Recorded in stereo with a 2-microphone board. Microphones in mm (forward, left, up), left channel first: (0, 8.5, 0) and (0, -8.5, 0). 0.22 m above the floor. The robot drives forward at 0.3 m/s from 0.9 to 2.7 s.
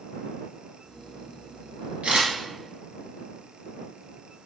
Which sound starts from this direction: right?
A camera shutter, at 2.0 s.